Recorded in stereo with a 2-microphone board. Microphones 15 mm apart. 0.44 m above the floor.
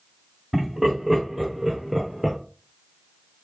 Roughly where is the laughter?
Right.